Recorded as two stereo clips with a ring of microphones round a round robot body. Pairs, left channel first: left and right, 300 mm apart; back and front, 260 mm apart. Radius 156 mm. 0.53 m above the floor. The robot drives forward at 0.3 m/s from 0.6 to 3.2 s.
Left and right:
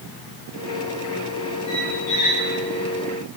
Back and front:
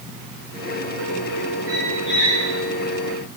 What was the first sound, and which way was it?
A squeak, 130° left.